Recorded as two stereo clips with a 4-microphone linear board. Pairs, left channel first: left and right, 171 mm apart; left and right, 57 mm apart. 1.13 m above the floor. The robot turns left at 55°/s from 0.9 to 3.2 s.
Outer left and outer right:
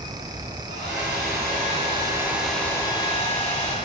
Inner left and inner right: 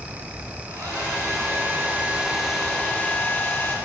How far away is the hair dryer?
About 2.5 m.